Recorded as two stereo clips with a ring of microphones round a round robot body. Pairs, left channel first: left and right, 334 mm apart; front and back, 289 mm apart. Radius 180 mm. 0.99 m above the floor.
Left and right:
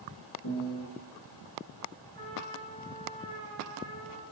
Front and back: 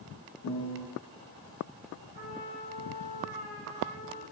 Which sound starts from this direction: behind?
A trumpet, at 2.1 s.